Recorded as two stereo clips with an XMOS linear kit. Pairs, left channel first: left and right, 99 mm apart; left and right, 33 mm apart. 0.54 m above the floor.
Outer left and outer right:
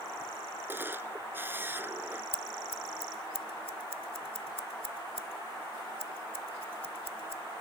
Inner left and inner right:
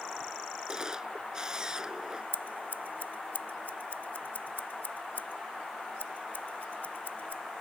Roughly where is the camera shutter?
Right.